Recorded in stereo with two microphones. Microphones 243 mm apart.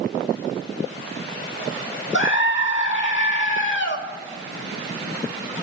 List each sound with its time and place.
2.1 s a scream: 50° left (ahead or behind), 1.4 m